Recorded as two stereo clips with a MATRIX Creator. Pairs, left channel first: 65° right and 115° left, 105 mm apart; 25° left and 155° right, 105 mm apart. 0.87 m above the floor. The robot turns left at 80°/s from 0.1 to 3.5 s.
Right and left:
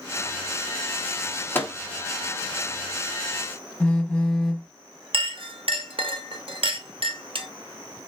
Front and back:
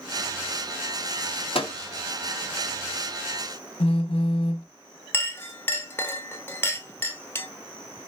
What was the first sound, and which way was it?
A microwave, straight ahead.